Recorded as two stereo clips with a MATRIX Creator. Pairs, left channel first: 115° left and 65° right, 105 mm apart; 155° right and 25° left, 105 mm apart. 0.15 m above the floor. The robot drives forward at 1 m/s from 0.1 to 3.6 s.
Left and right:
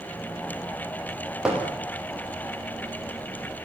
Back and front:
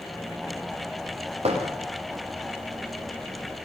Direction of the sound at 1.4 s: 15° left.